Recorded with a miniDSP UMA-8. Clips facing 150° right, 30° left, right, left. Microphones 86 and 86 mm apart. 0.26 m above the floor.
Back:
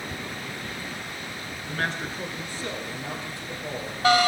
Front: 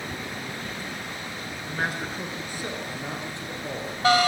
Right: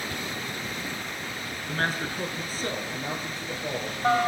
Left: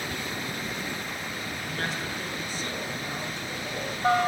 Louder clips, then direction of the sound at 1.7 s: Even, right 5 dB; 55° right.